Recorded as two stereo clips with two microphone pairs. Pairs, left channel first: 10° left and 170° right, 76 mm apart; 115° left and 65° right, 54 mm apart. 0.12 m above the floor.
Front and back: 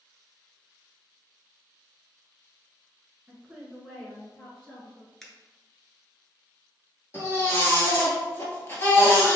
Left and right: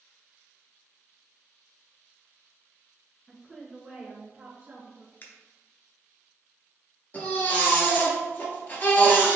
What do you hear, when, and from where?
3.3 s a woman speaking: 165° left, 1.4 m; by 5.1 s 45° right, 2 m
5.2 s a finger snap: 95° left, 1.2 m
7.1 s a baby crying: 60° left, 1.6 m